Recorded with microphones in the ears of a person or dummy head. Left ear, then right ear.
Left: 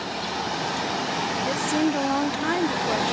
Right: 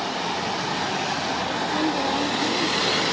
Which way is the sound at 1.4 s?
50° left (ahead or behind).